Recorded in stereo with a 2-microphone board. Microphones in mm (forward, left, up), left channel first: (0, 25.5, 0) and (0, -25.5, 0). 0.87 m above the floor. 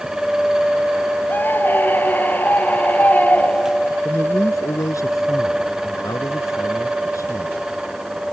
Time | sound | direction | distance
1.3 | a scream | 40° left (ahead or behind) | ?
4.0 | a man speaking | 85° left | ?